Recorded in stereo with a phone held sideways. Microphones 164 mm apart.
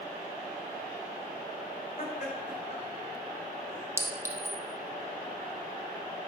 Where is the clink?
15° right (ahead or behind), 0.6 m.